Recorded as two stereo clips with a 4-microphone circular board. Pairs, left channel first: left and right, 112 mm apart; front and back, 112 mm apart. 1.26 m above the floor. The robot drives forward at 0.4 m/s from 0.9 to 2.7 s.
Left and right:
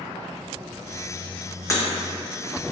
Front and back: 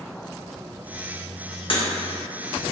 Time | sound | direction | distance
1.7 | breaking glass | 30° left | 0.8 m